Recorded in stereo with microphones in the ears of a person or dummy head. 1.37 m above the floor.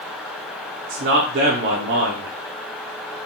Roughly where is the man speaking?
Right.